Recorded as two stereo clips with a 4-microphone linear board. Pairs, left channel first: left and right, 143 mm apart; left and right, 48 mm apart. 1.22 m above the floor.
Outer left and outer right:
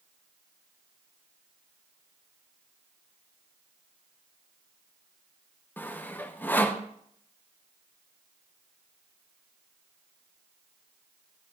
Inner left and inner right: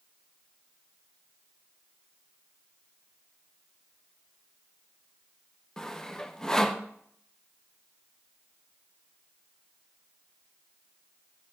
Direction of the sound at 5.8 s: 15° left (ahead or behind).